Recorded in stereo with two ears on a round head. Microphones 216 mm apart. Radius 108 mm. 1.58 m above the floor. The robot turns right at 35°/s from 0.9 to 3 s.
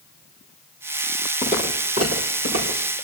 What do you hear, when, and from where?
1.4 s footsteps: 20° right (ahead or behind), 3.5 m; by 2.8 s 55° right (ahead or behind), 5 m